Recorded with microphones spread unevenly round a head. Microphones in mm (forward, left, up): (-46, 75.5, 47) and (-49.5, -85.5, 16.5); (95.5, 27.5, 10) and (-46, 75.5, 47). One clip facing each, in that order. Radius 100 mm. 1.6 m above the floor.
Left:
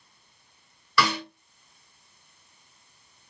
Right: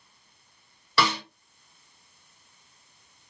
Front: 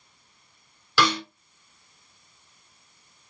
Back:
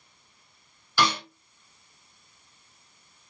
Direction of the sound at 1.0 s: 20° right.